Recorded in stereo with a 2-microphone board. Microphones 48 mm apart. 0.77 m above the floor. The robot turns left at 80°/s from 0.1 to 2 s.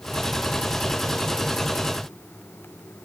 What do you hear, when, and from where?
Only background noise.